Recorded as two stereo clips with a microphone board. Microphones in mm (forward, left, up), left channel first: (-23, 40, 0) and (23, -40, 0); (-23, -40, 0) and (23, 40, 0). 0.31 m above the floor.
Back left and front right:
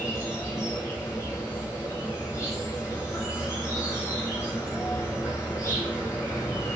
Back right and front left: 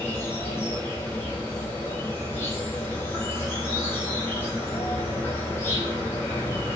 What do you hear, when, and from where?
0.0 s an insect: 175° left, 1.2 m